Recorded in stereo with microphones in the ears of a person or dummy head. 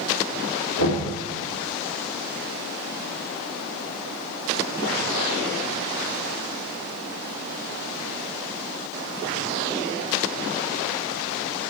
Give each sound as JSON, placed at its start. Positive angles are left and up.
{"t": 0.8, "sound": "knocking", "side_deg": 75, "distance_m": 2.5}